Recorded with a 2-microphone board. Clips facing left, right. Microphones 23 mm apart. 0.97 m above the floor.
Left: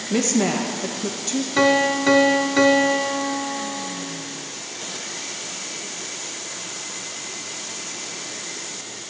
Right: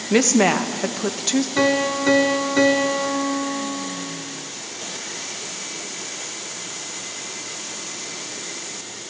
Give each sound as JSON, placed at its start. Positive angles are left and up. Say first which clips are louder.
{"t": 0.1, "sound": "a woman speaking", "louder": "right 4 dB", "side_deg": -50, "distance_m": 0.8}
{"t": 1.6, "sound": "a piano", "louder": "left 5 dB", "side_deg": 15, "distance_m": 0.9}